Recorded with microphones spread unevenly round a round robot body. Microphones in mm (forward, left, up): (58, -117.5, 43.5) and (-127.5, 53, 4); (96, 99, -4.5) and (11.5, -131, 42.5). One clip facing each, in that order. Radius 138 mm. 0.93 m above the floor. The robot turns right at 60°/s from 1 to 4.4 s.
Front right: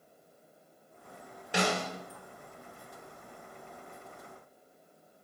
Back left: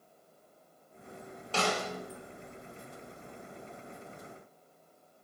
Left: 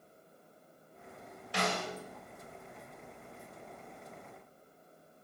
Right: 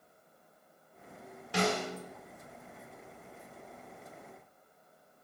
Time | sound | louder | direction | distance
1.5 | a snare drum | front right 1 dB, right 5 dB | 120° right | 2.5 m